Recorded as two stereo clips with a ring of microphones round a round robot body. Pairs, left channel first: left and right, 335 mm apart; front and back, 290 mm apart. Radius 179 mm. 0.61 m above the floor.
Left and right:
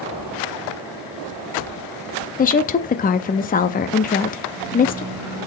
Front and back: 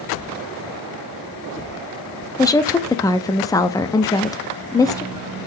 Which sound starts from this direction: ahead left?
A woman speaking, at 2.4 s.